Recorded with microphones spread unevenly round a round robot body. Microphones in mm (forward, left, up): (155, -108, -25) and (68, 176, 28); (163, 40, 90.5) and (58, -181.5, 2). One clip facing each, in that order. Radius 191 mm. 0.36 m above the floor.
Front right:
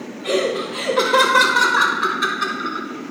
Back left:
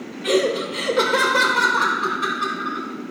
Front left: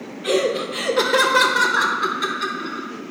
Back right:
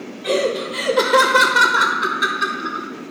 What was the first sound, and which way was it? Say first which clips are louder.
Laughter: back left 1 dB, even; 165° left.